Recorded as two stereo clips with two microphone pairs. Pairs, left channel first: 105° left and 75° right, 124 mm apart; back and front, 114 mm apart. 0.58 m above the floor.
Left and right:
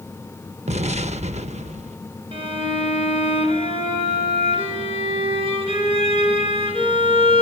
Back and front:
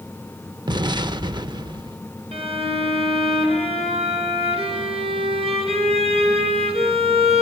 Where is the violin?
30° right, 4.5 m.